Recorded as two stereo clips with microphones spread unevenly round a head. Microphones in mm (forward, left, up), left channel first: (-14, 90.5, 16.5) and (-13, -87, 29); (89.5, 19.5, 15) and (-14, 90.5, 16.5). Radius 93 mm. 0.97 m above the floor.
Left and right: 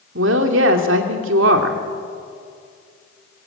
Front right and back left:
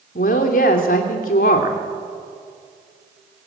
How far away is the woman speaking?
About 2.5 m.